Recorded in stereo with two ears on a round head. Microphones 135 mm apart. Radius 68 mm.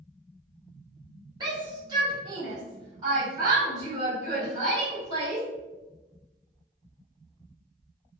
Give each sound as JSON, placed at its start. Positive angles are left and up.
{"t": 1.4, "sound": "a shout", "side_deg": -30, "distance_m": 1.7}